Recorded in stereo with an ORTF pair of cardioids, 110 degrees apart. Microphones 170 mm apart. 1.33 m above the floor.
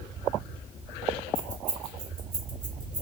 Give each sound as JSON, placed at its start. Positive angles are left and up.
{"t": 1.4, "sound": "keys jangling", "azimuth_deg": -55, "distance_m": 1.4}